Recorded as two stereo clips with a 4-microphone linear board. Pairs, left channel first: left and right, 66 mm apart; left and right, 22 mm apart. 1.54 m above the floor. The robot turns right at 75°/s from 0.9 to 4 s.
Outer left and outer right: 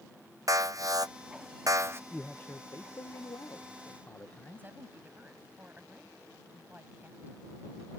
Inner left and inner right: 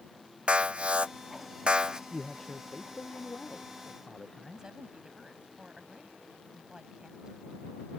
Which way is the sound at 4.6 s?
30° right (ahead or behind).